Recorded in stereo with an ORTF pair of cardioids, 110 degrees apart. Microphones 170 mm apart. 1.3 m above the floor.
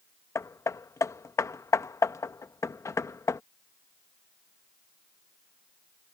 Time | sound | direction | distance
0.3 | hammering | 20° left | ?